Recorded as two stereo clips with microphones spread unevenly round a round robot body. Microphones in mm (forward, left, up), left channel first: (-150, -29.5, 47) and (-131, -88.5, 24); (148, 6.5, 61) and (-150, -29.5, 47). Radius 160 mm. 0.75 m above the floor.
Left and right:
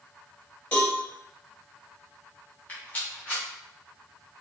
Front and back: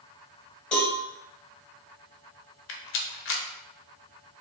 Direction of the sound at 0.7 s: 90° left.